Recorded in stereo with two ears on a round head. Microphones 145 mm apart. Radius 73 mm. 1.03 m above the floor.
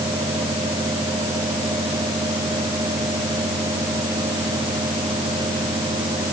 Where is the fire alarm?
I don't hear a fire alarm.